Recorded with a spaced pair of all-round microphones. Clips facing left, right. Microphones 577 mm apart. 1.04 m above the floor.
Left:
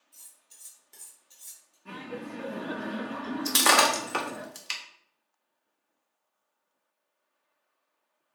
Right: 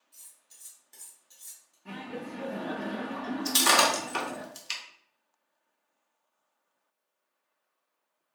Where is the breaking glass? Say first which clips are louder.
Left 2 dB; 75° left (ahead or behind), 0.6 m.